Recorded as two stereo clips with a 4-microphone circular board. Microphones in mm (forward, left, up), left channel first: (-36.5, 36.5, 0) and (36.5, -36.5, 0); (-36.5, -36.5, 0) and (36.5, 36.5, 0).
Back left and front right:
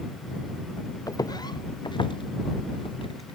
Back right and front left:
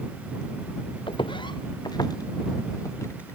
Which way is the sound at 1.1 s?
170° right.